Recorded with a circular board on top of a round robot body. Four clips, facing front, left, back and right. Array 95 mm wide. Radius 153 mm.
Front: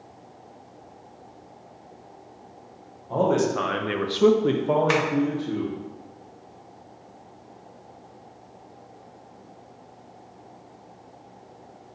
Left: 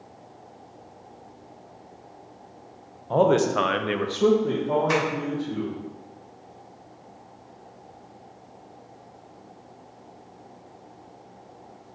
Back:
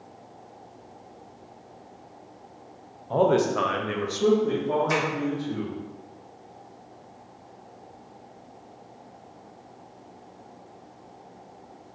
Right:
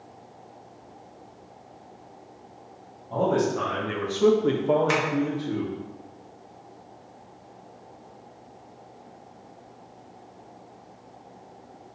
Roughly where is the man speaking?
Left.